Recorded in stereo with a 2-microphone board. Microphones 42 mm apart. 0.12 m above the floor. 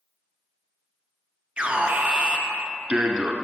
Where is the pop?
No pop in this recording.